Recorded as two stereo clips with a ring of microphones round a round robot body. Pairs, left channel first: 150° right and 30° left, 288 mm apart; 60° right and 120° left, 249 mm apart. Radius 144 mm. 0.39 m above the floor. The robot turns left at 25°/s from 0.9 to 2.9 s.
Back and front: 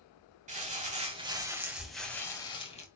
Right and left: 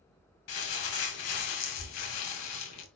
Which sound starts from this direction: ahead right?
Crumpling, at 0.5 s.